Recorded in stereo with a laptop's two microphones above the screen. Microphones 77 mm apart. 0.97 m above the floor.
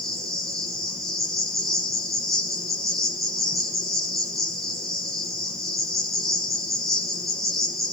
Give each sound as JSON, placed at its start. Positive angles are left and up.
{"t": 0.0, "sound": "an insect", "side_deg": 0, "distance_m": 7.0}